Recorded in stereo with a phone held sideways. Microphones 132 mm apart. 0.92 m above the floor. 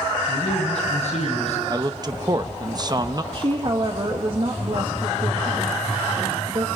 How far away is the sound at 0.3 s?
About 8.5 m.